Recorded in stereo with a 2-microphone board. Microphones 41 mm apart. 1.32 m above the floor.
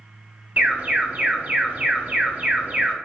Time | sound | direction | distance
0.6 | an alarm | 35° right (ahead or behind) | 0.6 m